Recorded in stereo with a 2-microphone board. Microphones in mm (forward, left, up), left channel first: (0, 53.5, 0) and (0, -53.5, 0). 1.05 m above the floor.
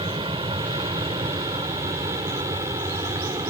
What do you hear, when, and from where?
0.0 s an aircraft: 55° right (ahead or behind); by 3.5 s 45° right (ahead or behind)